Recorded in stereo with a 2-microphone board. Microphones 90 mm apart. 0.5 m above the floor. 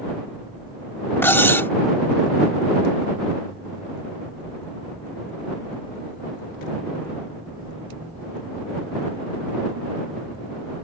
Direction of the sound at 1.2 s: 25° left (ahead or behind).